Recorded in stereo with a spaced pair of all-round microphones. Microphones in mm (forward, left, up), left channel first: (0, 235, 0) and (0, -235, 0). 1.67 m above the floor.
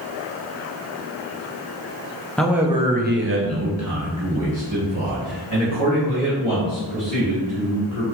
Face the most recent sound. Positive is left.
turn(degrees=-40)  # may be behind; listen again after turning